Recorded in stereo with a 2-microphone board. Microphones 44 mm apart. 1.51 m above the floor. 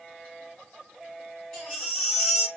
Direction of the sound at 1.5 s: 20° left (ahead or behind).